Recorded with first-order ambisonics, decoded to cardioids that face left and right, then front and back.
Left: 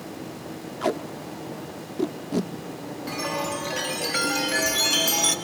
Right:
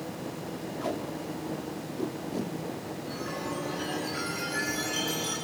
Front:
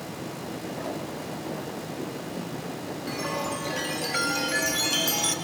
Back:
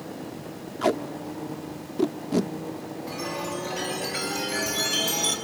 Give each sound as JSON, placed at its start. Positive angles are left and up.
{"t": 0.8, "sound": "tape being pulled", "azimuth_deg": 145, "distance_m": 0.8}
{"t": 3.1, "sound": "a chime", "azimuth_deg": 70, "distance_m": 1.9}